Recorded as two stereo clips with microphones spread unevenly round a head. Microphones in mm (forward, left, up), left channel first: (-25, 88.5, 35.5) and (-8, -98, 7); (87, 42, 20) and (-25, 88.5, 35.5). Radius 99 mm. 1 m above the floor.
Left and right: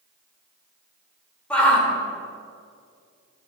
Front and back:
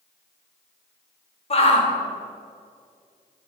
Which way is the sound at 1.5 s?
10° left.